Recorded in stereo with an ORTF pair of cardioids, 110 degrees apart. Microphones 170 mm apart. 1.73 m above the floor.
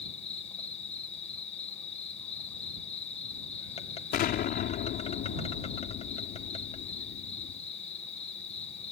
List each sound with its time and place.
0.0 s an insect: 35° left
4.1 s an explosion: 70° left